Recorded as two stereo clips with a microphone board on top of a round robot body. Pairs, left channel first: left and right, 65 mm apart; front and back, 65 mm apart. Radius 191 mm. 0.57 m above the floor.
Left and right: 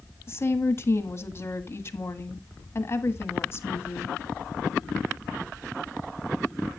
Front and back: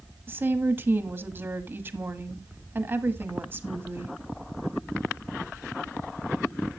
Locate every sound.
0.3 s a woman speaking: 130° left, 1.8 m